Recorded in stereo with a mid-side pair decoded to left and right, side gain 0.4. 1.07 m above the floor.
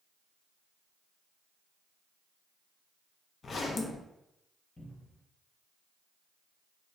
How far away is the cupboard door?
About 1.3 m.